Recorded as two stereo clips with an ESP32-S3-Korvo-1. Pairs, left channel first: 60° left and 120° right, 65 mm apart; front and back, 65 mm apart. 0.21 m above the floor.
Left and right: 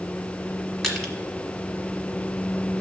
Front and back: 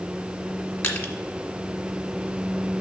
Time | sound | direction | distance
0.8 | crushing | 20° right | 1.3 m